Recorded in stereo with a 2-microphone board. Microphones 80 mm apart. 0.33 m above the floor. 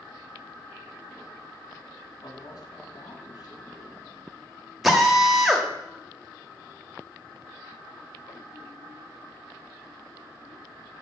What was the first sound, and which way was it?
A man speaking, 55° left (ahead or behind).